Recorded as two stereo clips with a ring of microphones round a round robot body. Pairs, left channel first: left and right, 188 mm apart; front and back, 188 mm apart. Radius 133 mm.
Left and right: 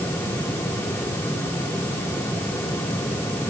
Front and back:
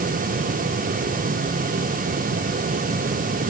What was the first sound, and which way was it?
Only background noise.